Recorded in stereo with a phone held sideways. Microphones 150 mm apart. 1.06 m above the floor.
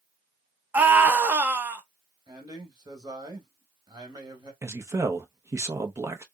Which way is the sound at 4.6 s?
20° right (ahead or behind).